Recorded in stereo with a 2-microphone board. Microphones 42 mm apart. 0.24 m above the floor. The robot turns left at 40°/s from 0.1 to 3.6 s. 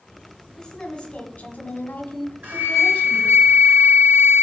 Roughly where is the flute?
Ahead right.